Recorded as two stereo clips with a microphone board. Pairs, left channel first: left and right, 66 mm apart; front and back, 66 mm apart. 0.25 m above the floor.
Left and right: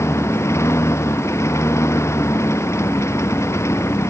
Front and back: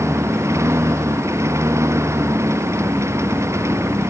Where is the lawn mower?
135° left.